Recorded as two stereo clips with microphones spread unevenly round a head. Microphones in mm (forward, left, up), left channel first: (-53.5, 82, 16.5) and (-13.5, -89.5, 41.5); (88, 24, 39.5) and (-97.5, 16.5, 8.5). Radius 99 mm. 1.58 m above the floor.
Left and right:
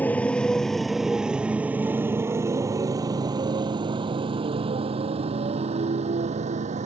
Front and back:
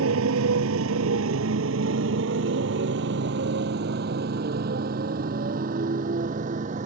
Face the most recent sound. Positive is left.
turn(degrees=-125)